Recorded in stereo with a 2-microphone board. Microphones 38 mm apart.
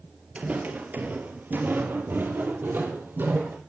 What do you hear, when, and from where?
0.3 s footsteps: 35° right (ahead or behind), 1.8 m; by 3.6 s 55° right (ahead or behind), 3 m